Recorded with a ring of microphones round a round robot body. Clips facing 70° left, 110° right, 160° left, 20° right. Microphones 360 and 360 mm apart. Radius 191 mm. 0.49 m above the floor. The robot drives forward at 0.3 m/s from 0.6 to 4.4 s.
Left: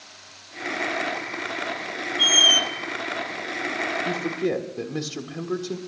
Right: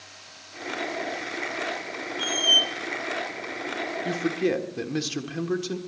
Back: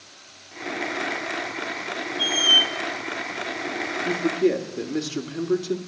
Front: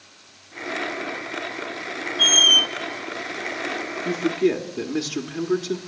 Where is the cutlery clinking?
I don't hear cutlery clinking.